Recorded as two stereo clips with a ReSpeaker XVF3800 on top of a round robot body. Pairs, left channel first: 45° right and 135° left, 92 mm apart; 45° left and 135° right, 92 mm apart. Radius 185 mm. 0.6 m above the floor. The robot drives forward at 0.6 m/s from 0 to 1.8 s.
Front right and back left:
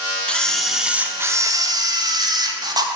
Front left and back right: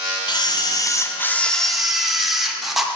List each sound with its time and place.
0.3 s a camera shutter: 30° left, 0.9 m; by 2.9 s 140° left, 0.8 m